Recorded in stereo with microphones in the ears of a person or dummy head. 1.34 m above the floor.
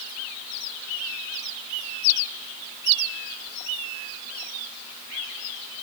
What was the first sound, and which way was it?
Only background noise.